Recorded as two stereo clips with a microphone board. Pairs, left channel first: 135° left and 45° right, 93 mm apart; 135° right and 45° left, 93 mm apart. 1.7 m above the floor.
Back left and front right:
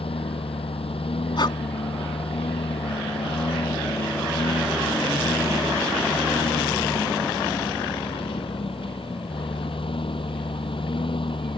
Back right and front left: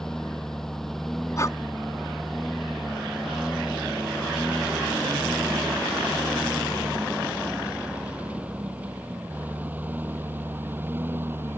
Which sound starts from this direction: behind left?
A lawn mower, at 0.0 s.